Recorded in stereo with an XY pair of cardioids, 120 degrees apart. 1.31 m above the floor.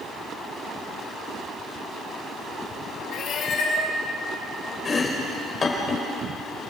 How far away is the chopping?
About 3.5 m.